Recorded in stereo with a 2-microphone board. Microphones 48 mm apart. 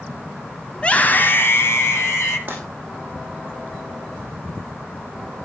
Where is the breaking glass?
40° right (ahead or behind), 7 m.